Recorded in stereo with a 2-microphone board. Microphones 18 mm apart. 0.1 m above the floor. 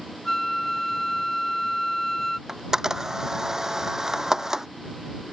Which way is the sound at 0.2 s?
15° left (ahead or behind).